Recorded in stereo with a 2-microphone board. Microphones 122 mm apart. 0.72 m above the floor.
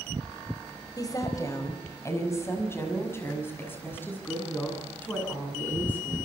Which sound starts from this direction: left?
A woman speaking, at 1.0 s.